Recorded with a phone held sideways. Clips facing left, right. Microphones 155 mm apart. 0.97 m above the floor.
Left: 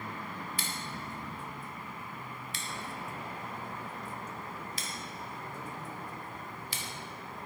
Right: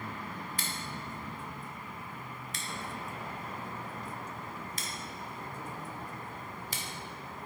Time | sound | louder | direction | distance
0.6 | scissors | even | 45° right (ahead or behind) | 1.2 m